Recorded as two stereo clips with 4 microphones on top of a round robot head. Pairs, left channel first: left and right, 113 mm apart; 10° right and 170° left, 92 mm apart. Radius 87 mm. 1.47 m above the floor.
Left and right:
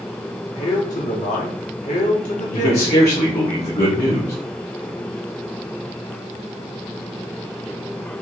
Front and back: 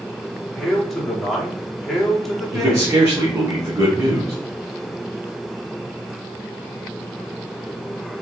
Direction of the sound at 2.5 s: 115° left.